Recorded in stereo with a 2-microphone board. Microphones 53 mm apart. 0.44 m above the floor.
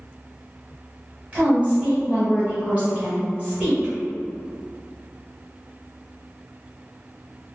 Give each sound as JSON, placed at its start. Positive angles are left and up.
{"t": 1.3, "sound": "a woman speaking", "side_deg": -20, "distance_m": 1.2}